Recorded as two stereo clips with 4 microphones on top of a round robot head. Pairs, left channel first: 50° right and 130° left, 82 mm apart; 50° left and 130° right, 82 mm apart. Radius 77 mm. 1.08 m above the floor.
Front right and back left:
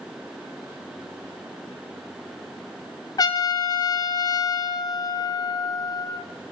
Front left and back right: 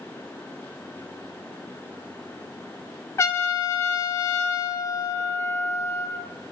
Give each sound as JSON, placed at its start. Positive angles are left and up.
{"t": 3.2, "sound": "a trumpet", "azimuth_deg": -5, "distance_m": 0.5}